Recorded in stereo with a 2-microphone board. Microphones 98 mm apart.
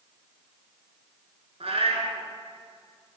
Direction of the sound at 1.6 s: 75° right (ahead or behind).